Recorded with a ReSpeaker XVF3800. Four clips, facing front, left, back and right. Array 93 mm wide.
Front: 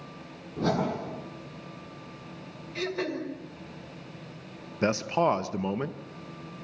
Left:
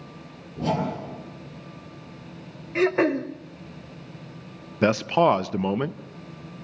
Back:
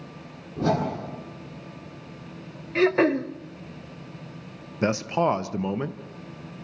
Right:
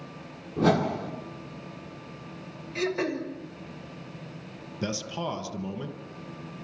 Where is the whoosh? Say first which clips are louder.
Right 3 dB, back 3 dB; 90° right, 9.5 m.